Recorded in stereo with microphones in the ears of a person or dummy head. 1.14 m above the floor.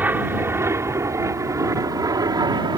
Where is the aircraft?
10° right (ahead or behind); by 2.8 s 20° right (ahead or behind).